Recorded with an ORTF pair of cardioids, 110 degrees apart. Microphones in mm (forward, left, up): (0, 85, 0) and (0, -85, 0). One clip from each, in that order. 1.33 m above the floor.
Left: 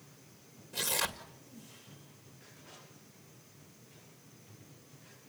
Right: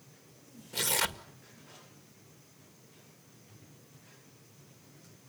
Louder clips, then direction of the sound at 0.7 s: Right 3 dB; 25° right.